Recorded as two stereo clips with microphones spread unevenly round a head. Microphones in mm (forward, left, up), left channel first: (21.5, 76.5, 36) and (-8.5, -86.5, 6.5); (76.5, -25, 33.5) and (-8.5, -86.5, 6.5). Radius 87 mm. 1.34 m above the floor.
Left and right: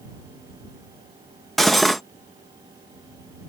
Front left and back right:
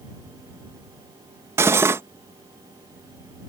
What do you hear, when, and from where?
1.6 s cutlery clinking: 140° left